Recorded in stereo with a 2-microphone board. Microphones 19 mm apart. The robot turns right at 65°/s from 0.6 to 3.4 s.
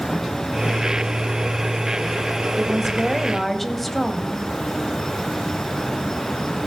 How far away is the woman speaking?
About 1.1 m.